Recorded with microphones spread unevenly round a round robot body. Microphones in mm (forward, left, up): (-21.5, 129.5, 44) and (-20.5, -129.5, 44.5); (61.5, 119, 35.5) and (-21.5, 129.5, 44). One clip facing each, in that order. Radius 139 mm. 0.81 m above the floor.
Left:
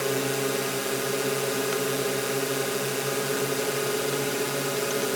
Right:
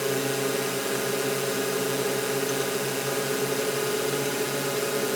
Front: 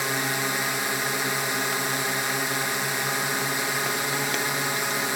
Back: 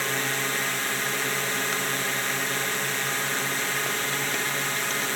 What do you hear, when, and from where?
0.0 s a drone: 5° left